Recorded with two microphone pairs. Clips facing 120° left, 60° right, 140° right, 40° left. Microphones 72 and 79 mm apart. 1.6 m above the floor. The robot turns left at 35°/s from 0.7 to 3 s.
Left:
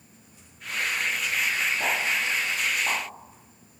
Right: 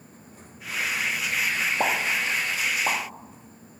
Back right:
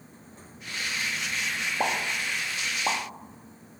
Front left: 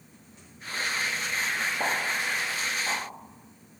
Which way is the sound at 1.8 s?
80° right.